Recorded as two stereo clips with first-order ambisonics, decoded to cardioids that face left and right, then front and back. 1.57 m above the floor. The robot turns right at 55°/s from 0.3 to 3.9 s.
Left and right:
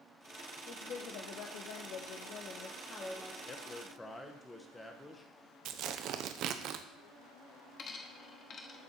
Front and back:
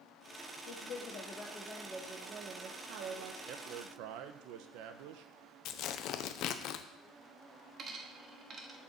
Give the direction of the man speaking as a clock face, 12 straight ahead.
7 o'clock.